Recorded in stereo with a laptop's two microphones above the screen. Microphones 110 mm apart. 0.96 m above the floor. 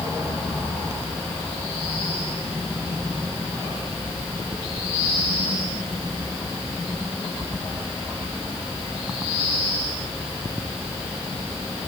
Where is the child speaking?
I don't hear a child speaking.